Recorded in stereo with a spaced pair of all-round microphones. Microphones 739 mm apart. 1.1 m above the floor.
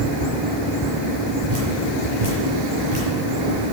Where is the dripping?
55° right (ahead or behind), 8 m.